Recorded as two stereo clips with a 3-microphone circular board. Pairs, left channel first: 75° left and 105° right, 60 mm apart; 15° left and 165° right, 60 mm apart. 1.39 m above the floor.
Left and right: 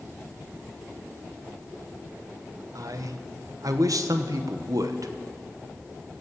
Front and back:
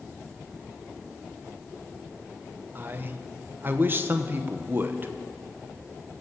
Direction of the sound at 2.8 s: 110° right.